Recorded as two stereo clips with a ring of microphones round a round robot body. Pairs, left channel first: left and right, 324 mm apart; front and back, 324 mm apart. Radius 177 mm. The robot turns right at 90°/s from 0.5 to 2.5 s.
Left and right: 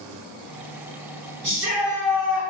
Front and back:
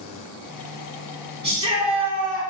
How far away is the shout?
About 2.0 m.